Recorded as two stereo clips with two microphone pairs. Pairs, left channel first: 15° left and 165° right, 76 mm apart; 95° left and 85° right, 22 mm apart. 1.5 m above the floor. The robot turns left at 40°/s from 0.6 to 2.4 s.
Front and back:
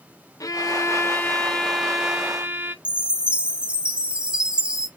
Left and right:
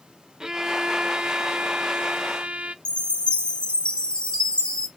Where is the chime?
120° left, 1.3 m.